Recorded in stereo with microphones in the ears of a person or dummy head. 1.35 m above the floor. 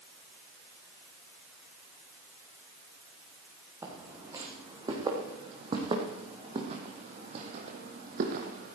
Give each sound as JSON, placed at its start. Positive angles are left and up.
{"t": 3.8, "sound": "footsteps", "side_deg": -15, "distance_m": 4.0}